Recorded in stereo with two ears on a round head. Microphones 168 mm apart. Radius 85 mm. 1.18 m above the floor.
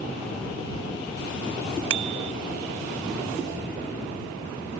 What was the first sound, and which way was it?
A bicycle bell, 80° right.